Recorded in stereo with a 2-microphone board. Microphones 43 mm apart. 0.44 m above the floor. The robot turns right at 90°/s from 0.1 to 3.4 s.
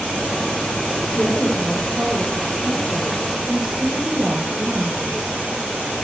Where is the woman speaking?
135° left, 8.5 m; by 5.2 s 25° right, 8.5 m.